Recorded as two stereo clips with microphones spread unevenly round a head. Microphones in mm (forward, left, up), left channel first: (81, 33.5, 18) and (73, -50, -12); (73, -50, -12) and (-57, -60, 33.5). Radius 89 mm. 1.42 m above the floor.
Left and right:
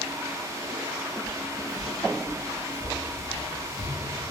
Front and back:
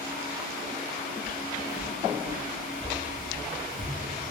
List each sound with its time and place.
1.2 s footsteps: 140° left, 1.8 m; by 3.9 s 20° right, 1.7 m